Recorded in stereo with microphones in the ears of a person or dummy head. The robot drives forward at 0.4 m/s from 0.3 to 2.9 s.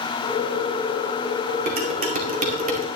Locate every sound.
1.7 s dishes clattering: 45° right (ahead or behind), 2 m; by 2.9 s 35° right (ahead or behind), 2.5 m